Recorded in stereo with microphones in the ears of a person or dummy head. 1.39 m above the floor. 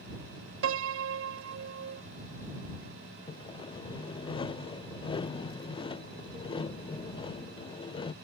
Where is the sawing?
25° left (ahead or behind).